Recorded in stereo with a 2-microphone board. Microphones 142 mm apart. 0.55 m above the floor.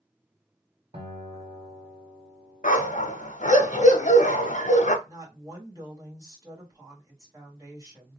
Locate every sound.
0.9 s a guitar: 45° right (ahead or behind), 1.9 m
2.6 s a dog barking: 60° left (ahead or behind), 0.9 m
5.0 s a woman speaking: 25° right (ahead or behind), 1.8 m